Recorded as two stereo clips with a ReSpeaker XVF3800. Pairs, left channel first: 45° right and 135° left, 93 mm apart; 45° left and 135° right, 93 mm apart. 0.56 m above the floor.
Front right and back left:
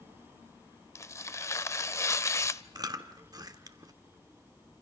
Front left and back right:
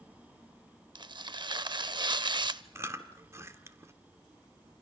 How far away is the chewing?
About 1.2 m.